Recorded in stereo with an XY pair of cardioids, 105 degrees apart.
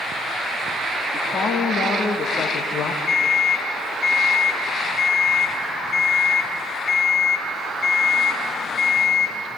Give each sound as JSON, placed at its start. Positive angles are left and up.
{"t": 1.1, "sound": "a woman speaking", "azimuth_deg": 45, "distance_m": 3.5}
{"t": 3.1, "sound": "an alarm clock", "azimuth_deg": 50, "distance_m": 3.5}